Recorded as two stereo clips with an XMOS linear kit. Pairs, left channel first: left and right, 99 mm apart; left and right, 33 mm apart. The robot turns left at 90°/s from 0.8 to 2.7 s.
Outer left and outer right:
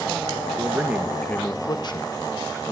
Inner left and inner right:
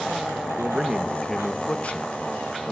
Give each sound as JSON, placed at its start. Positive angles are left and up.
{"t": 0.6, "sound": "a man speaking", "azimuth_deg": -155, "distance_m": 1.3}